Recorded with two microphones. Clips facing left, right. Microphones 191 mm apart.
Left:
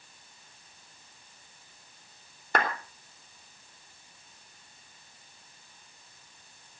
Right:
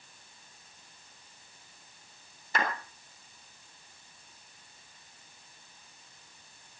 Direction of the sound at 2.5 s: 65° left (ahead or behind).